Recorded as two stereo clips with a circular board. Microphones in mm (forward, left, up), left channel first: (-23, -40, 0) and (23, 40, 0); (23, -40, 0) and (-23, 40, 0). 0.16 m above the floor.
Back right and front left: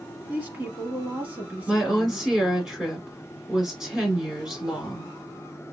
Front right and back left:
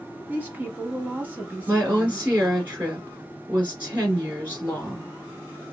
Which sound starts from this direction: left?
A woman speaking, at 0.3 s.